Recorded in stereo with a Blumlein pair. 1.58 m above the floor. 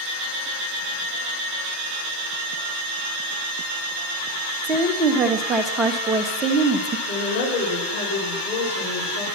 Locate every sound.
4.6 s a woman speaking: 15° right, 1.1 m
7.1 s a woman speaking: 70° left, 4 m